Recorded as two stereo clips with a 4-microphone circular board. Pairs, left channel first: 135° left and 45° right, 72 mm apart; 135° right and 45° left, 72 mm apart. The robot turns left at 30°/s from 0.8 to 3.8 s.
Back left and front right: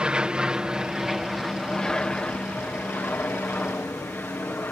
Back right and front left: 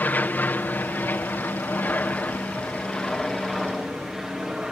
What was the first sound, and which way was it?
An aircraft, 105° right.